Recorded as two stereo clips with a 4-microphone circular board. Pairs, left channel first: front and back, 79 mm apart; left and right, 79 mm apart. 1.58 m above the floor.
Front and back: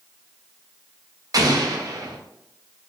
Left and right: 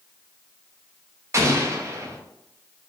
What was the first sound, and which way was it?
An explosion, 140° right.